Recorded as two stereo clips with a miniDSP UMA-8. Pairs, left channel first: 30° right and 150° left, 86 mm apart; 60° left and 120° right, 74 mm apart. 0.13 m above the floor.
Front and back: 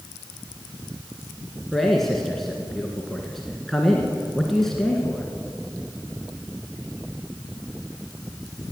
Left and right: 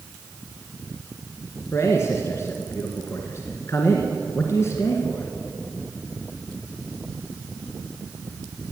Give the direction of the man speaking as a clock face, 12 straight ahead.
10 o'clock.